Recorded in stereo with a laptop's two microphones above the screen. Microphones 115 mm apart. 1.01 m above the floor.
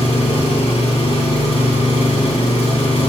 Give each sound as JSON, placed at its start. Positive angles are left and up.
{"t": 0.0, "sound": "an engine running", "side_deg": 60, "distance_m": 2.0}